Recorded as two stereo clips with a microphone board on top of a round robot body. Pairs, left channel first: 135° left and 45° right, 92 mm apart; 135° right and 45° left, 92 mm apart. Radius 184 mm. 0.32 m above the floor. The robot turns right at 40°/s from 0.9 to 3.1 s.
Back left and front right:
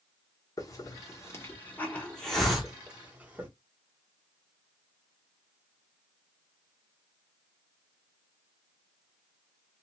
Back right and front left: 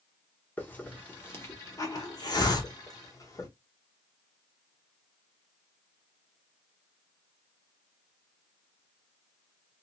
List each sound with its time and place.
0.6 s a hiss: 160° left, 1.7 m; by 3.5 s 110° right, 1.7 m